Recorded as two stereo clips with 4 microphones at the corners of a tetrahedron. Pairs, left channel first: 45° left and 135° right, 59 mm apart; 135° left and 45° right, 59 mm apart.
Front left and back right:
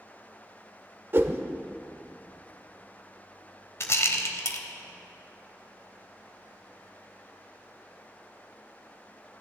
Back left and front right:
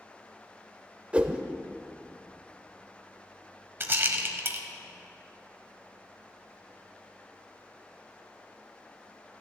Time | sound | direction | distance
1.1 | a whoosh | 110° right | 0.7 m
3.8 | a rattle | 5° left | 0.9 m